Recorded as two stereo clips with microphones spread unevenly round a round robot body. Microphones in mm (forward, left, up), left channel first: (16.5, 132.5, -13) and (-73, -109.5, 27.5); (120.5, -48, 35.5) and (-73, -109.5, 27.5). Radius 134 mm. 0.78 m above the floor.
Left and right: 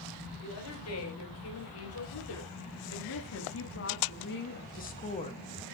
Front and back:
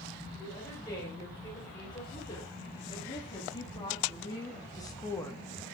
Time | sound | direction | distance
0.4 | a woman speaking | 90° left | 3.5 m